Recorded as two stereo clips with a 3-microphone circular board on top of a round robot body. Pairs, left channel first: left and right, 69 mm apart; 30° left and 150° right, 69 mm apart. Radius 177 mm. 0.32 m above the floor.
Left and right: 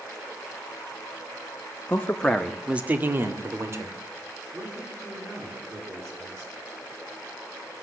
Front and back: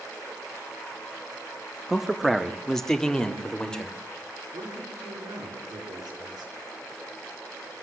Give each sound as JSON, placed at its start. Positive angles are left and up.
{"t": 1.9, "sound": "a man speaking", "azimuth_deg": 130, "distance_m": 1.5}
{"t": 4.5, "sound": "a man speaking", "azimuth_deg": -145, "distance_m": 6.5}